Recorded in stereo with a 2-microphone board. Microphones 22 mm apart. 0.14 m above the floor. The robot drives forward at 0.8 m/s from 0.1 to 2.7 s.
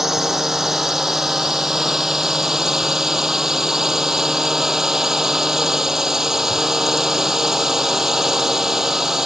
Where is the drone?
15° right (ahead or behind); by 9.3 s 20° right (ahead or behind).